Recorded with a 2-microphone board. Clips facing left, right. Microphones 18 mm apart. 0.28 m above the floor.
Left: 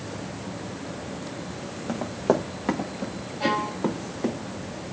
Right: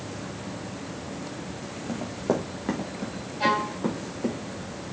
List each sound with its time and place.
1.9 s running footsteps: 20° left (ahead or behind), 1.7 m
3.4 s a violin: 10° right (ahead or behind), 2 m